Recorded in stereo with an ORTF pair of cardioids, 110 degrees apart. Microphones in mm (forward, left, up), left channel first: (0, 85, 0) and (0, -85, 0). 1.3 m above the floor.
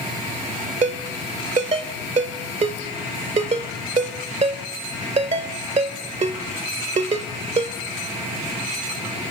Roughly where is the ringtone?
Ahead right.